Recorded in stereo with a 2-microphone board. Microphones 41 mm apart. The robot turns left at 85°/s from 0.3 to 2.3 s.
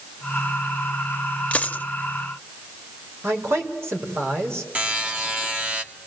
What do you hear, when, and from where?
1.5 s a dropped coin: 30° left (ahead or behind), 1.0 m; by 1.9 s 40° left (ahead or behind), 1.0 m
3.2 s a man speaking: 80° right, 5 m
4.8 s a buzzer: 35° right (ahead or behind), 2.0 m